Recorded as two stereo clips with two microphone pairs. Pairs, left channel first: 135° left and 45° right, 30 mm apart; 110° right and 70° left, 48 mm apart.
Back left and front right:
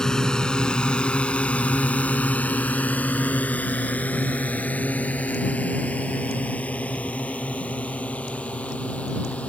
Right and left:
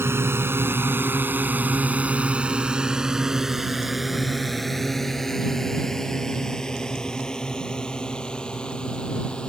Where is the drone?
70° left; by 9.5 s 175° left.